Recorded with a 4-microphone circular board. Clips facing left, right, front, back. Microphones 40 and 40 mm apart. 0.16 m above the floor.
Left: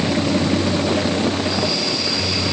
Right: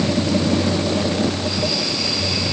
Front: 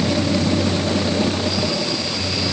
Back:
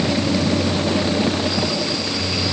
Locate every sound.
Only background noise.